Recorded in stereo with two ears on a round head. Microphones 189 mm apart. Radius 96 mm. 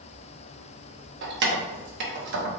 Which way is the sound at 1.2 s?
55° right (ahead or behind).